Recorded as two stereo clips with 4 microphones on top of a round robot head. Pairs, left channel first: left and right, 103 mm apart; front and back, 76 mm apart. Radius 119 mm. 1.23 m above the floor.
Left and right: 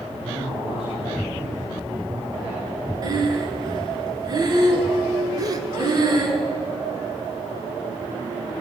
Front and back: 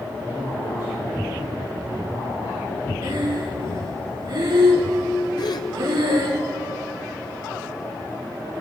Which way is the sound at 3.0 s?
140° right.